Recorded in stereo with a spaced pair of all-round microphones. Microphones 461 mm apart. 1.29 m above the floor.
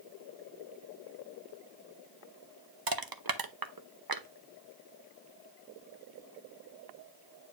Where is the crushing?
45° right (ahead or behind), 0.8 m.